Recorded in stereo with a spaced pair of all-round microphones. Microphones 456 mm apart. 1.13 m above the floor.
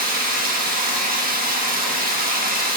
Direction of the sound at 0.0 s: 20° right (ahead or behind).